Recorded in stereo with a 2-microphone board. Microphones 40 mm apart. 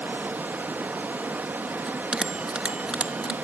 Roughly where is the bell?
Right.